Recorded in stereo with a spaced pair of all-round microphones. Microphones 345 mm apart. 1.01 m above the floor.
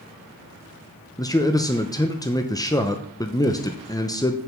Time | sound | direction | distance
1.2 | a man speaking | 10° left (ahead or behind) | 0.5 m